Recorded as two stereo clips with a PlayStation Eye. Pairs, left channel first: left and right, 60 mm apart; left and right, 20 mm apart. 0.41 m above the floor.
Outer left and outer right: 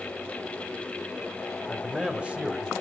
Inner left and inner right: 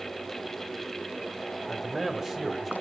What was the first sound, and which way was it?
A man speaking, 15° right (ahead or behind).